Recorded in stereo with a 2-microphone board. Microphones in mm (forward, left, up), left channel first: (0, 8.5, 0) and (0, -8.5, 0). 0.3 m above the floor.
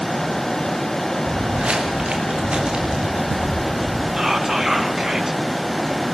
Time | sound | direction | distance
1.2 | footsteps | 85° right | 4 m
4.2 | whispering | 30° right (ahead or behind) | 3 m